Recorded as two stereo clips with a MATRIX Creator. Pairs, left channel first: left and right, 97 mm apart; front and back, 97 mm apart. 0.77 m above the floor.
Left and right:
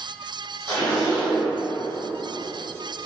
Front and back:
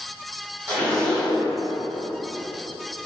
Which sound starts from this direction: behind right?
A zipper, at 0.7 s.